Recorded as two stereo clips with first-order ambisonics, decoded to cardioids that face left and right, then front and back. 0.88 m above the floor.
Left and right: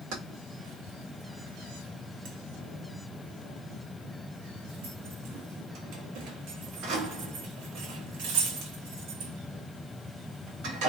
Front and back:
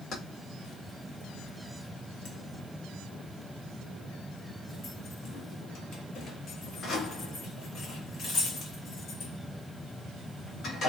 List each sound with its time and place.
0.1 s keys jangling: 55° right, 0.8 m